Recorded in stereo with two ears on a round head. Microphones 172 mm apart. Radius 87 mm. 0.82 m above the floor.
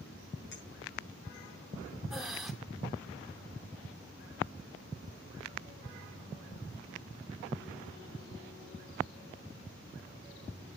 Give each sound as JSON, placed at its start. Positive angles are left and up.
{"t": 0.5, "sound": "a clink", "side_deg": 70, "distance_m": 7.5}
{"t": 2.1, "sound": "breathing", "side_deg": 0, "distance_m": 2.5}